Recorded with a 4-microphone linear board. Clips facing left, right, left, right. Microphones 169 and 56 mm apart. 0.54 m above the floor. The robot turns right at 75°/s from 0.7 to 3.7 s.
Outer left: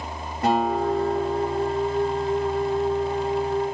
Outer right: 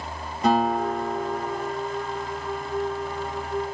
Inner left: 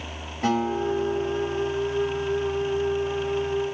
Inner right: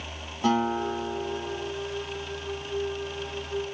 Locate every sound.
0.4 s a guitar: 75° left, 4.5 m; by 1.7 s 150° left, 4.5 m